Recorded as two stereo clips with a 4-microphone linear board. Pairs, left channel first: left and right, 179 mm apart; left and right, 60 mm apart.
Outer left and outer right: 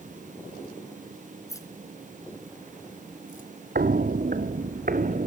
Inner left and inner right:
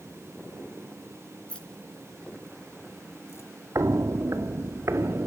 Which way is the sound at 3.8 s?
60° right (ahead or behind).